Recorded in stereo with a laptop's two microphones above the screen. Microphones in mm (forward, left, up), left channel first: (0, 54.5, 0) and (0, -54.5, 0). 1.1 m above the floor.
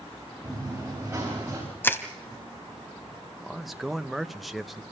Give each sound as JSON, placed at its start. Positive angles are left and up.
{"t": 0.4, "sound": "running footsteps", "side_deg": -15, "distance_m": 9.0}
{"t": 1.8, "sound": "crushing", "side_deg": 20, "distance_m": 1.1}
{"t": 3.4, "sound": "a man speaking", "side_deg": 0, "distance_m": 0.7}